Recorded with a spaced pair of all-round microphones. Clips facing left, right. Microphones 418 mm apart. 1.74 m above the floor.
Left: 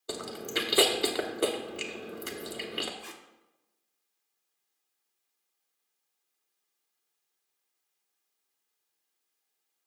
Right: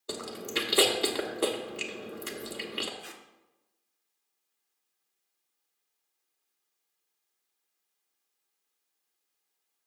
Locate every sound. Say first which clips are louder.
0.1 s chewing: even; centre (ahead or behind), 0.8 m
3.0 s tape being pulled: left 1 dB; 15° left (ahead or behind), 0.6 m